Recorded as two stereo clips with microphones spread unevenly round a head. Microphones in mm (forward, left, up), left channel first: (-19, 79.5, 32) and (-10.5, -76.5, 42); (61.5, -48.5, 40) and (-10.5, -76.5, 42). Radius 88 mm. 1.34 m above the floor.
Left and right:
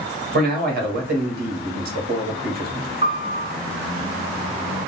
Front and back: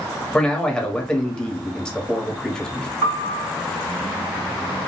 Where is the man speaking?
60° right, 1.2 m.